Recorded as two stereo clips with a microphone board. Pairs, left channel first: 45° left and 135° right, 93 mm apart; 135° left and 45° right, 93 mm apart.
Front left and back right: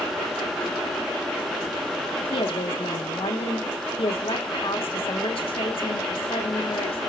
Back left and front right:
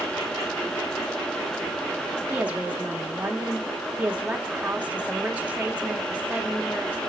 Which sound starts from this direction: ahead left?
A woman speaking, at 2.3 s.